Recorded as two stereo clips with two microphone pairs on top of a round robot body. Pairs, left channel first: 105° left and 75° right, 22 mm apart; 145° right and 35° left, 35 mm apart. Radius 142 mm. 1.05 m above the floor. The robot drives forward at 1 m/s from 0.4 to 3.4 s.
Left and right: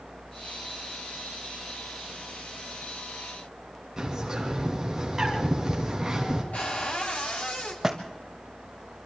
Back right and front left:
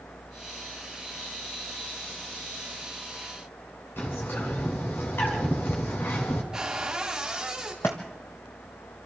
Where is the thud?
140° right, 0.8 m.